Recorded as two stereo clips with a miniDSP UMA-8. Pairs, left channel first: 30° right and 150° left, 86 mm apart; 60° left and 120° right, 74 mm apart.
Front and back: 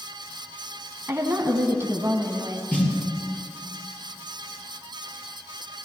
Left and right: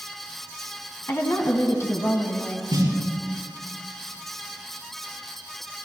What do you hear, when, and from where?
1.1 s a woman speaking: 100° left, 2 m
2.7 s a snare drum: 100° right, 5 m